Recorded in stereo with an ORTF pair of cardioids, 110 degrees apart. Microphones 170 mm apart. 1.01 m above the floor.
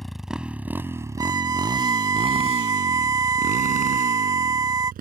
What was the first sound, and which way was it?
A motorcycle, straight ahead.